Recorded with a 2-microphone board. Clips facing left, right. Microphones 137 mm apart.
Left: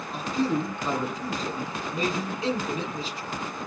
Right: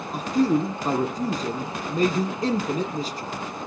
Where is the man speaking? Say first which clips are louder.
Right 5 dB; 45° right (ahead or behind), 1.9 m.